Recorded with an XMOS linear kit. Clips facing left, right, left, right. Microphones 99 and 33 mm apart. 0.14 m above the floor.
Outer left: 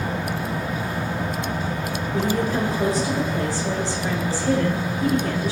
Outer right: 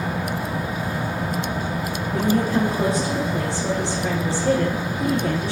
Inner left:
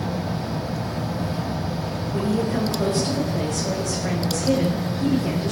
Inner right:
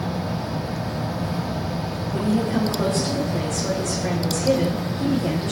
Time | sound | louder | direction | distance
2.1 | a woman speaking | outer right 3 dB, inner right 1 dB | 70° right (ahead or behind) | 9.5 m